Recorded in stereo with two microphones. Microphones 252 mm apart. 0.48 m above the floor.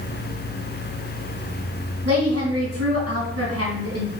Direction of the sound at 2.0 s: 75° right (ahead or behind).